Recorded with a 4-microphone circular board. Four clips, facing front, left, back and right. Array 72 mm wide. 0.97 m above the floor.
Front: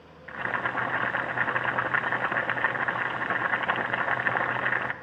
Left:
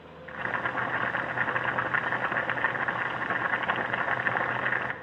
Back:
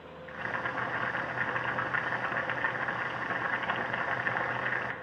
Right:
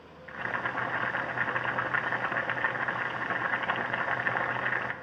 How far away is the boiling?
About 0.7 m.